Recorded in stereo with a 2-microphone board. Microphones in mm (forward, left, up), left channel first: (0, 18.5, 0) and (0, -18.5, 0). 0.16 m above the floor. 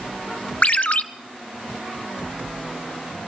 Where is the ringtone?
45° left (ahead or behind), 0.7 m.